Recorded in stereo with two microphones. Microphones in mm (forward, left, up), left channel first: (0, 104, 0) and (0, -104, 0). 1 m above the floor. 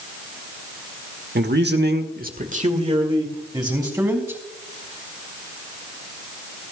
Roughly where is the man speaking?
Right.